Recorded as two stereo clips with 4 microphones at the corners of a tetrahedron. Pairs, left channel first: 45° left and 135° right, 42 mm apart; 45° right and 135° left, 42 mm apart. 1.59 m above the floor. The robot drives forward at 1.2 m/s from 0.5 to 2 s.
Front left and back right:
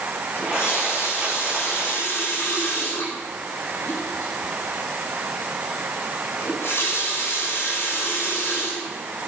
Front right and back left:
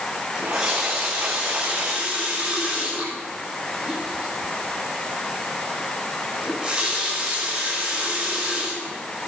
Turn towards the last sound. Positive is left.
turn(degrees=65)